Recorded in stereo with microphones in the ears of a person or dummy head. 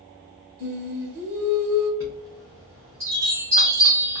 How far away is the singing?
About 1.0 m.